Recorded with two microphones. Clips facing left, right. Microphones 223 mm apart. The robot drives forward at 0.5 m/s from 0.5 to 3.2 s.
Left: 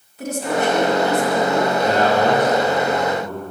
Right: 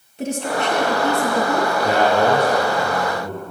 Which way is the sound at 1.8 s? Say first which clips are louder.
Right 2 dB; 10° right (ahead or behind).